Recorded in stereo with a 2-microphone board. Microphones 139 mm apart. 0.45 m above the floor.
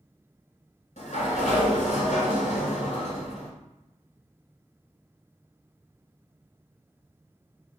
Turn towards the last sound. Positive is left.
turn(degrees=65)  # may be behind; listen again after turning